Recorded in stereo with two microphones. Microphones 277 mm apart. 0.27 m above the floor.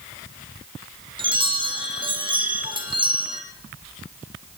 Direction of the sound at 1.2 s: 15° right (ahead or behind).